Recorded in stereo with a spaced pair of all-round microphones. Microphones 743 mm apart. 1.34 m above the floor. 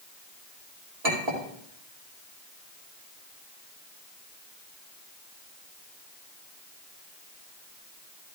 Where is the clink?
55° right (ahead or behind), 2.5 m.